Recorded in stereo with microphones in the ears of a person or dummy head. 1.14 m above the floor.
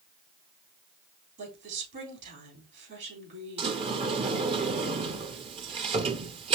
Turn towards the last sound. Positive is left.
turn(degrees=-30)  # may be behind; listen again after turning